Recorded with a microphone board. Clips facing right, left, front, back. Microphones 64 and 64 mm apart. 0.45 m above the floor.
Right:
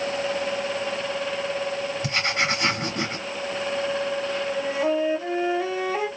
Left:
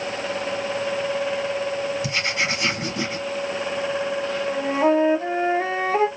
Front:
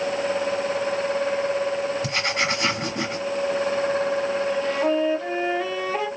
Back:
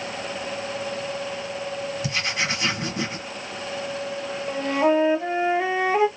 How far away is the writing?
About 1.8 m.